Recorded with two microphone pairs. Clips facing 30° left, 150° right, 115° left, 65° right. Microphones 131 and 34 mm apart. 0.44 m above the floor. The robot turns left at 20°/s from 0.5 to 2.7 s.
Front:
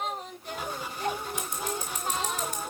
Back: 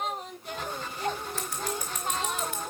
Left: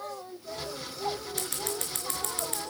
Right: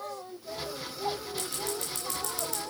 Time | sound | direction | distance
1.4 | scissors | 100° left | 4.5 m